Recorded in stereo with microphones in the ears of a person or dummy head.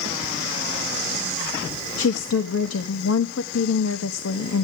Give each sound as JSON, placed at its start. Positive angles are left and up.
{"t": 2.0, "sound": "a woman speaking", "side_deg": 80, "distance_m": 1.2}